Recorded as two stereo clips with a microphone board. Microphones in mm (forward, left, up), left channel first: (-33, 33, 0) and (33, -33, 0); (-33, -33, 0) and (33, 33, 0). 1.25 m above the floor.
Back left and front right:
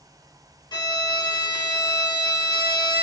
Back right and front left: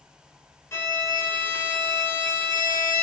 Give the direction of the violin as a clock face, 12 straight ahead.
6 o'clock.